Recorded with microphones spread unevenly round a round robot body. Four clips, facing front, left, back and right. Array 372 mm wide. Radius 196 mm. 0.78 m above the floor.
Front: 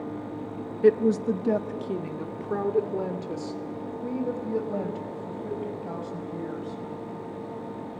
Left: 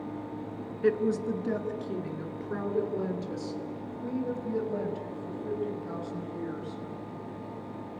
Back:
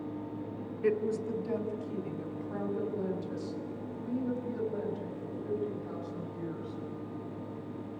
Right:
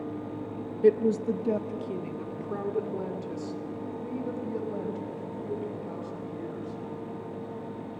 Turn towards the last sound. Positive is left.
turn(degrees=0)